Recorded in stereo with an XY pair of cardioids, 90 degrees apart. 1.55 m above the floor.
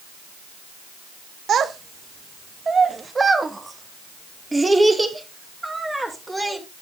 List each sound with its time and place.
1.5 s a child speaking: 65° right, 1.4 m; by 6.6 s 15° right, 5.5 m